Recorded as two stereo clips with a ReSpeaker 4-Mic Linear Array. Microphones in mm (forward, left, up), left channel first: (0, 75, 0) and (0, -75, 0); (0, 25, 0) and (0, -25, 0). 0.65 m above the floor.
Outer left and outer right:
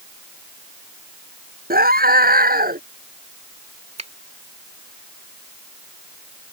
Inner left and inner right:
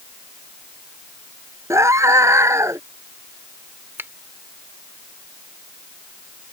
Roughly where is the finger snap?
Right.